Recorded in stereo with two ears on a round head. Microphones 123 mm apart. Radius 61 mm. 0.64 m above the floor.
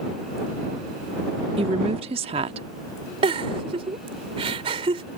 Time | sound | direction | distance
1.6 | a woman speaking | 45° right (ahead or behind) | ?
3.2 | a giggle | 45° right (ahead or behind) | ?